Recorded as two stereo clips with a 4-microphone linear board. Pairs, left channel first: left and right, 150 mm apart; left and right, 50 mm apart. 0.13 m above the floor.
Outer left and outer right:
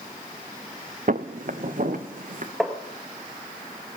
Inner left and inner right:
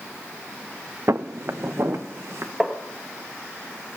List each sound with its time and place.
1.1 s footsteps: 65° right (ahead or behind), 0.8 m; by 2.5 s 60° right (ahead or behind), 2 m
2.6 s tapping: centre (ahead or behind), 1.9 m